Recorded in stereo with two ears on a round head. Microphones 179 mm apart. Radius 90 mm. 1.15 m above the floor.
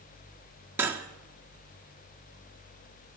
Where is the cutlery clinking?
10° right (ahead or behind), 1.4 m.